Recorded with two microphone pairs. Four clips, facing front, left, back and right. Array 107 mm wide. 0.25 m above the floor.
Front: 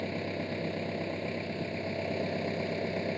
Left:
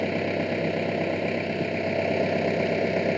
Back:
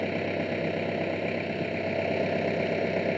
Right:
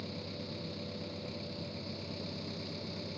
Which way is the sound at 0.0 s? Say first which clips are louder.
Left 17 dB, back 6 dB; 105° left.